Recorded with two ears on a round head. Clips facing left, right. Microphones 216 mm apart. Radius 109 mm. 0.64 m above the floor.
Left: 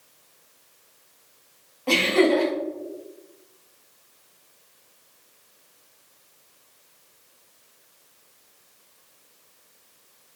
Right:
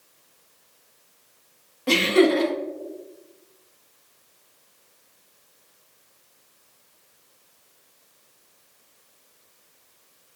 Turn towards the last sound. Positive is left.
turn(degrees=-20)  # may be behind; listen again after turning